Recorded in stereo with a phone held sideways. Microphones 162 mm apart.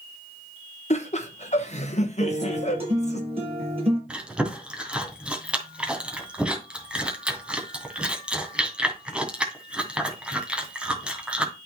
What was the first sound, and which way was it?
Laughter, 45° left (ahead or behind).